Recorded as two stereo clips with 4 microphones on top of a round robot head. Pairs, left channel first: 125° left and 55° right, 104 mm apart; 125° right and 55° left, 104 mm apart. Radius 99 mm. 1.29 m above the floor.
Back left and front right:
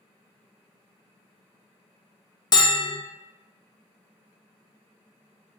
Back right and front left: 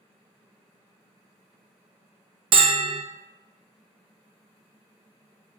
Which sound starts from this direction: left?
A bell, at 2.5 s.